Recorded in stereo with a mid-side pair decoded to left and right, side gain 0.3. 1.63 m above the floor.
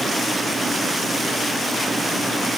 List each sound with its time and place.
Only background noise.